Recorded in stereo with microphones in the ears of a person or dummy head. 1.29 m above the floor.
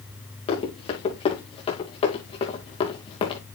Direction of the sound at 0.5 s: 35° left (ahead or behind).